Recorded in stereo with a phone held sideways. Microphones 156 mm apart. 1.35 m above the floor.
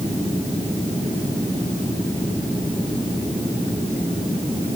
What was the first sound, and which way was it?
Only background noise.